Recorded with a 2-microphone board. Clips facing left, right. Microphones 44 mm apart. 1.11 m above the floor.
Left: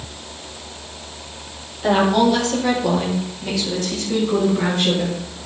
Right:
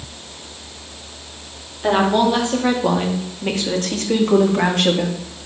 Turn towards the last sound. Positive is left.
turn(degrees=-75)  # may be behind; listen again after turning